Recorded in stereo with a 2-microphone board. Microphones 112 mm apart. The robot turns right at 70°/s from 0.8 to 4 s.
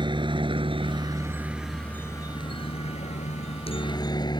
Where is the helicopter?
40° right (ahead or behind); by 4.4 s 35° left (ahead or behind).